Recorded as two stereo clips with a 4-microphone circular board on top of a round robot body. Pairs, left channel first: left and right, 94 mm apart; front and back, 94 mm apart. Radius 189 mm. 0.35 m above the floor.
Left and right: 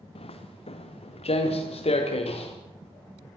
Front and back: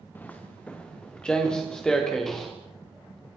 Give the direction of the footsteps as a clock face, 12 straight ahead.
10 o'clock.